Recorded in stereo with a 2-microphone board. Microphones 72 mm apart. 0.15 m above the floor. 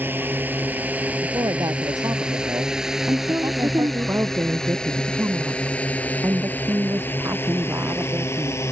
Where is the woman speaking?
40° right (ahead or behind).